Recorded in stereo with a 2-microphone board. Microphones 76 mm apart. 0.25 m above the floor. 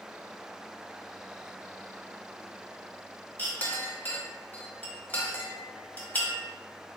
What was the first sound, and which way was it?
A clink, 25° left (ahead or behind).